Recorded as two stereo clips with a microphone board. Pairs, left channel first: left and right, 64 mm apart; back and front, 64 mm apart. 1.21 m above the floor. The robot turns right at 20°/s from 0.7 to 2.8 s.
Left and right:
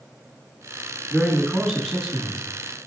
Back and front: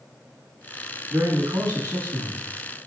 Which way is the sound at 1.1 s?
5° right.